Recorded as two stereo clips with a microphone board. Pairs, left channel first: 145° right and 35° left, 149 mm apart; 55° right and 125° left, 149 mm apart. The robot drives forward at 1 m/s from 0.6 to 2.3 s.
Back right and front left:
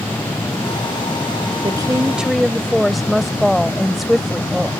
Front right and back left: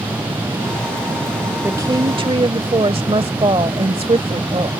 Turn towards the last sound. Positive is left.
turn(degrees=125)